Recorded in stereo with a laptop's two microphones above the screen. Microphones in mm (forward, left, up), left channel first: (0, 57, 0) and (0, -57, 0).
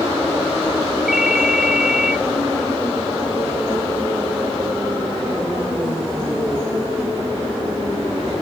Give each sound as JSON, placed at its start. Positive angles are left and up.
{"t": 1.1, "sound": "a ringtone", "side_deg": -5, "distance_m": 0.9}